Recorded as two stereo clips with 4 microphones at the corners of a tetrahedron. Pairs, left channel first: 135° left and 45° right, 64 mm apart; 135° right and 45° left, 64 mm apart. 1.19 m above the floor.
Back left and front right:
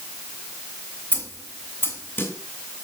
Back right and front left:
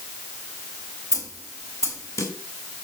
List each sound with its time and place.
1.1 s a snare drum: 165° right, 2 m